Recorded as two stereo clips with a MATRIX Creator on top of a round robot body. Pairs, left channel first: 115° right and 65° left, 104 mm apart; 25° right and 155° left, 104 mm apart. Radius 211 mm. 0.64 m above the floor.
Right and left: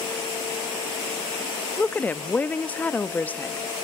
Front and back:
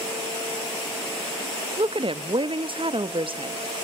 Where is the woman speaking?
175° left, 1.3 m.